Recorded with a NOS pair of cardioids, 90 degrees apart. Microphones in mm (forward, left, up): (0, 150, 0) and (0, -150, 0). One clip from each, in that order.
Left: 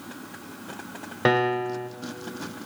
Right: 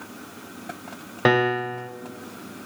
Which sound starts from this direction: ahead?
A piano, at 1.2 s.